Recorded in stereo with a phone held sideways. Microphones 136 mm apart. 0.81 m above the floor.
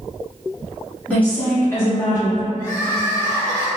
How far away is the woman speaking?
About 2.0 m.